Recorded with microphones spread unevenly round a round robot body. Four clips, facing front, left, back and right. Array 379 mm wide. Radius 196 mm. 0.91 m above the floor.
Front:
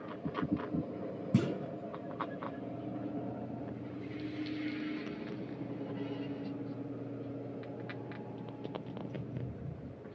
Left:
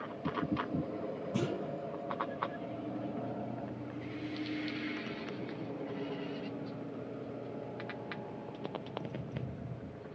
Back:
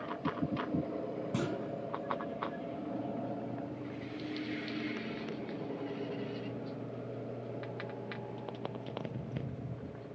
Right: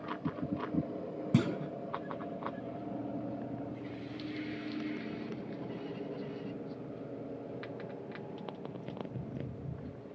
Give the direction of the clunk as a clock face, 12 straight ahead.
2 o'clock.